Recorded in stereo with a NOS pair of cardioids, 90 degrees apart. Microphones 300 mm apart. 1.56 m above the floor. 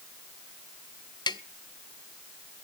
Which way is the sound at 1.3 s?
15° left.